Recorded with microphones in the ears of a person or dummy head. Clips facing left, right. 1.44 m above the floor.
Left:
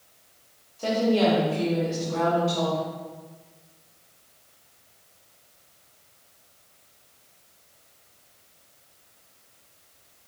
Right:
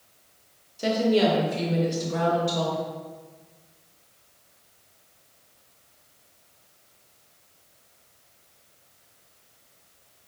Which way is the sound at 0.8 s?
20° right (ahead or behind).